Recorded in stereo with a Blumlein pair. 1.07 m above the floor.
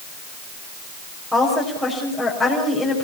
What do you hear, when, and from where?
1.3 s a woman speaking: straight ahead, 6 m